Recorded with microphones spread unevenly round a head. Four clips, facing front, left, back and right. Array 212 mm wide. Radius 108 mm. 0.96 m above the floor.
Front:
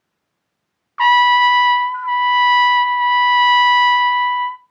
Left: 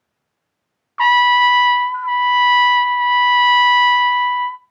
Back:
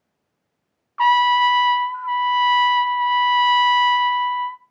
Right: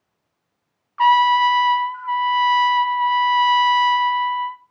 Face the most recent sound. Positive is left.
turn(degrees=50)